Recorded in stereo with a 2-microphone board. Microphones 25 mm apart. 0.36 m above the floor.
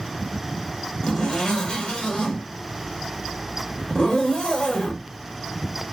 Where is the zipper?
40° left (ahead or behind), 1.0 m.